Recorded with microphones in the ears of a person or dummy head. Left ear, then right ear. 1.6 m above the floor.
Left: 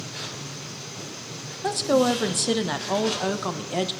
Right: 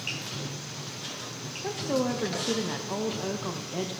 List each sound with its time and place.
1.6 s a woman speaking: 40° left (ahead or behind), 1.0 m